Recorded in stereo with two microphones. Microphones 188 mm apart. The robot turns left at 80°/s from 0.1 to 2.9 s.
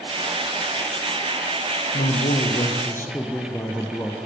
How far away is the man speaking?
About 2.5 m.